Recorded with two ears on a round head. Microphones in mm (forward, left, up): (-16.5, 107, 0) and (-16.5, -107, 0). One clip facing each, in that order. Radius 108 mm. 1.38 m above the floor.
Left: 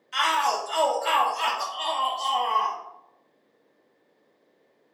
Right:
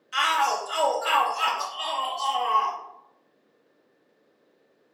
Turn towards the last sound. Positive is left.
turn(degrees=-5)  # may be behind; listen again after turning